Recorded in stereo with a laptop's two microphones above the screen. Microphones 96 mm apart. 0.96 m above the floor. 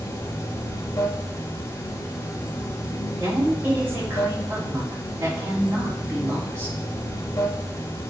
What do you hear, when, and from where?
0.0 s running water: 30° left (ahead or behind), 1.6 m
3.2 s a woman speaking: 30° right (ahead or behind), 3 m